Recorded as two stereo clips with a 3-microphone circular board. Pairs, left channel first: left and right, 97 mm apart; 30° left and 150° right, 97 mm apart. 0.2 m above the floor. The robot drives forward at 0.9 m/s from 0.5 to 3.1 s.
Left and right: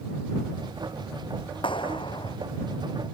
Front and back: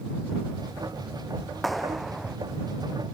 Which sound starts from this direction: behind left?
A clap, at 1.6 s.